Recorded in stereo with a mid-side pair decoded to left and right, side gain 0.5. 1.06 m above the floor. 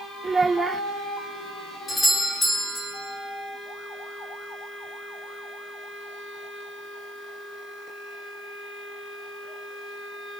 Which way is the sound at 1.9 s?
20° left.